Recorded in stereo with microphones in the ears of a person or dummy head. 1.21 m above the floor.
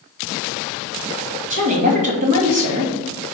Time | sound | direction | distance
1.5 | a woman speaking | 40° right (ahead or behind) | 1.4 m